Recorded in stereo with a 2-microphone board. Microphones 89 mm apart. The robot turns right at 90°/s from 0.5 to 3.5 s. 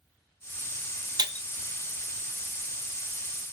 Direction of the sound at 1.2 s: 50° right (ahead or behind).